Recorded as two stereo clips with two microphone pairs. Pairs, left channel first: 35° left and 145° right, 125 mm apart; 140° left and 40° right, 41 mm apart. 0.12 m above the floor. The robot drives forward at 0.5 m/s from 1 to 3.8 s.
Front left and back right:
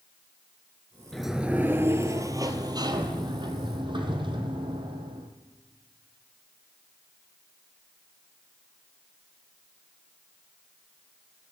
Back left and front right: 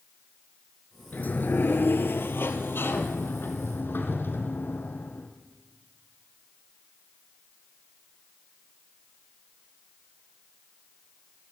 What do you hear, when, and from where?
1.1 s a sliding door: 120° left, 0.6 m; by 5.3 s 165° left, 1.7 m